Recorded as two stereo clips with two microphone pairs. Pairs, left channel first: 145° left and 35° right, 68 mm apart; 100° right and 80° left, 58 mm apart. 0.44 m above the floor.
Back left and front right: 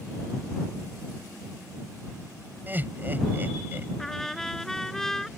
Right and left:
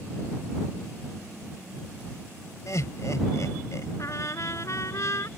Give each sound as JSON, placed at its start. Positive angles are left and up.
{"t": 2.7, "sound": "laughter", "azimuth_deg": -95}
{"t": 4.0, "sound": "a trumpet", "azimuth_deg": -130}